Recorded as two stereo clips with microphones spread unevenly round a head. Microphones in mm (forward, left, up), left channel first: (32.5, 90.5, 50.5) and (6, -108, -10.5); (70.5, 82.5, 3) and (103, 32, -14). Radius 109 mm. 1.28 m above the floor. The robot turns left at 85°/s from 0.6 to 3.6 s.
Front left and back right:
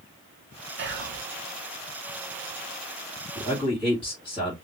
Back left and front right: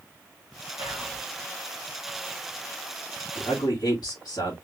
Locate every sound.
0.8 s whispering: 115° right, 1.2 m; by 1.2 s 150° right, 1.2 m
3.4 s a man speaking: 170° left, 2.5 m; by 4.5 s 150° left, 2.5 m